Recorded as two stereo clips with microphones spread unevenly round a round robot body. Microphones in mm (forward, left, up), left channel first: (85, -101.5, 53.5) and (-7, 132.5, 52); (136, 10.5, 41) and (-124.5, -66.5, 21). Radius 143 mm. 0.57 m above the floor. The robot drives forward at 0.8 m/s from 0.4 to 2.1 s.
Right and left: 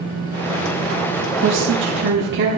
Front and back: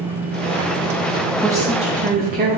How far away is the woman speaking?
About 0.9 m.